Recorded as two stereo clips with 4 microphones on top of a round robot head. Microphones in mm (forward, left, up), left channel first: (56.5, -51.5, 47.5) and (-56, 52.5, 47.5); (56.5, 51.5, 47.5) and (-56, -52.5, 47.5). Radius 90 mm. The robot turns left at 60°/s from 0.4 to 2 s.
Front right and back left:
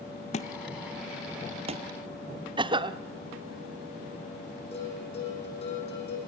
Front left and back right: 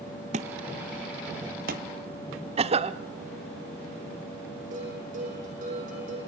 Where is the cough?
175° right, 1.0 m.